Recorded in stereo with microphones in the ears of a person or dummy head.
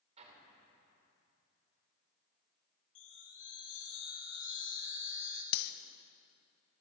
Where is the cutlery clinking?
60° left (ahead or behind), 0.7 m.